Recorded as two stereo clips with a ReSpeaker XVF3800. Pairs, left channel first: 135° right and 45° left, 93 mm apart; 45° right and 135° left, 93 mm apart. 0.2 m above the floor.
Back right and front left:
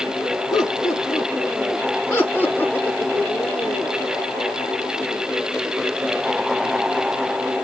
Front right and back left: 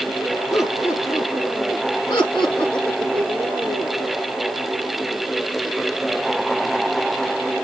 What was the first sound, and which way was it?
Laughter, 90° right.